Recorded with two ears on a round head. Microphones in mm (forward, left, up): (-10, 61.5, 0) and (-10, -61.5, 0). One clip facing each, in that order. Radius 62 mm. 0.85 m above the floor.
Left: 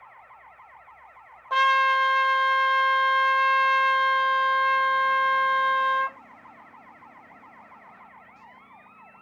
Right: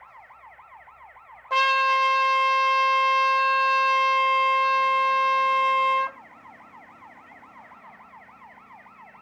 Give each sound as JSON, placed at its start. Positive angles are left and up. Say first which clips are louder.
{"t": 1.5, "sound": "a trumpet", "louder": "even", "side_deg": -10, "distance_m": 0.6}